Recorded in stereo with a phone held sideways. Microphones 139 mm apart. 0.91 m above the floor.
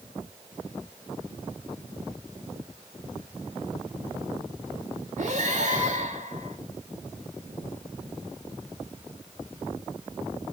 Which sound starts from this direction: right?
Breathing, at 5.2 s.